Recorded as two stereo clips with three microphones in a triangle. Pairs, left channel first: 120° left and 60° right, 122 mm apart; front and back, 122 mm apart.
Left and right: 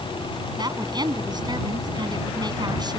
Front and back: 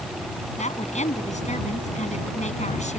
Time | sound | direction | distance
0.6 | a woman speaking | 5° right | ?